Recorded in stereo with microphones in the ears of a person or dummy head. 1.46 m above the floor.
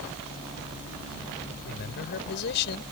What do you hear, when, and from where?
1.6 s a man speaking: 60° left (ahead or behind)